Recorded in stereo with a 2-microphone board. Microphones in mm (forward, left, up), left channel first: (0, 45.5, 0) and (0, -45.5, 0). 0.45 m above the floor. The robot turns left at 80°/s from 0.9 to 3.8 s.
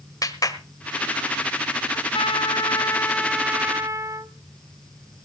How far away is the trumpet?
About 0.7 m.